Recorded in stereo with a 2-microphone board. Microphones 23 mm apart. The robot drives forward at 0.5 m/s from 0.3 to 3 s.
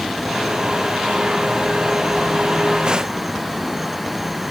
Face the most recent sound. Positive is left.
No sound to turn to.